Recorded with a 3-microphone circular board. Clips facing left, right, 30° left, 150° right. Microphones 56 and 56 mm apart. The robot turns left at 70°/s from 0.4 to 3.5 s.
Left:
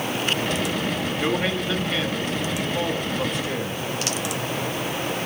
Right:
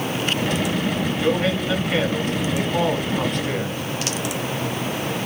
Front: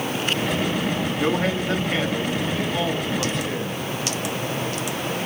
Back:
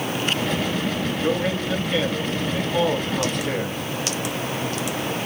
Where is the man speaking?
20° left, 6 m; by 3.8 s 140° right, 6 m.